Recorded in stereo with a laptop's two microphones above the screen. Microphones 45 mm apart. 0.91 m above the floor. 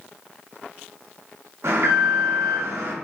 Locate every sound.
1.6 s an alarm: 70° right (ahead or behind), 0.6 m